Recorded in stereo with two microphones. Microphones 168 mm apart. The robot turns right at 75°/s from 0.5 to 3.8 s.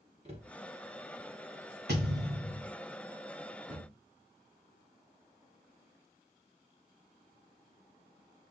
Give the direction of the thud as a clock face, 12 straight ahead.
3 o'clock.